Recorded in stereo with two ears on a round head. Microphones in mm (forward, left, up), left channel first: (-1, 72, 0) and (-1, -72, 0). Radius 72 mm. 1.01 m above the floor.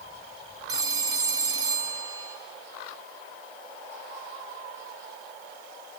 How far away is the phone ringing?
About 2.5 m.